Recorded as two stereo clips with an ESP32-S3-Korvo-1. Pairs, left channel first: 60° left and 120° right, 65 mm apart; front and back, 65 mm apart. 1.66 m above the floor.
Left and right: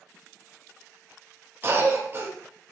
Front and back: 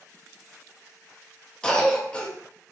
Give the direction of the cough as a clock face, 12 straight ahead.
2 o'clock.